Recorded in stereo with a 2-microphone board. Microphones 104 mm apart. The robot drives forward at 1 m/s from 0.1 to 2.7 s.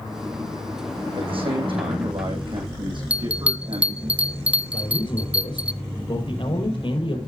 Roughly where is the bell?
Centre.